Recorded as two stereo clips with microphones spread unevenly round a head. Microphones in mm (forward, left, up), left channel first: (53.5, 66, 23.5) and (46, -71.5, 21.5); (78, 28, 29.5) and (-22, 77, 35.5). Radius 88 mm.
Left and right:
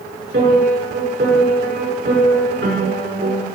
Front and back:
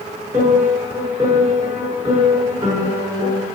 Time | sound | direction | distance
0.3 | a piano | 130° right | 6 m